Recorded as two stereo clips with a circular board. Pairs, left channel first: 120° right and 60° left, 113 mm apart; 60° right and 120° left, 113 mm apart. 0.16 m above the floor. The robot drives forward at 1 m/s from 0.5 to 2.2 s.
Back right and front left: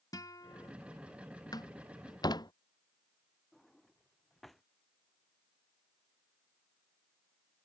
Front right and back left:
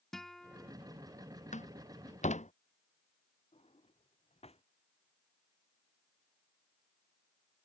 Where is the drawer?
30° right.